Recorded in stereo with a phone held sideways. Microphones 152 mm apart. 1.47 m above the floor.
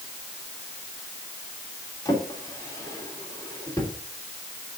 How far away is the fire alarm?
No fire alarm in this recording.